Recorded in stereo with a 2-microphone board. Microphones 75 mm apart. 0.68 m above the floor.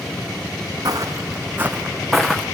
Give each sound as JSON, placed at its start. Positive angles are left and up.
{"t": 0.8, "sound": "footsteps", "side_deg": -55, "distance_m": 1.7}